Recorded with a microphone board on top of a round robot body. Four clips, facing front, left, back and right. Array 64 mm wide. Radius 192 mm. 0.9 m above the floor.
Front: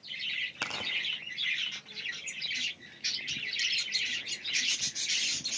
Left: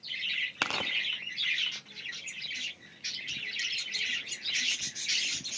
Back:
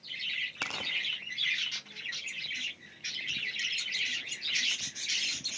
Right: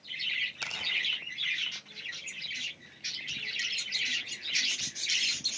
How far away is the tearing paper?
About 0.9 m.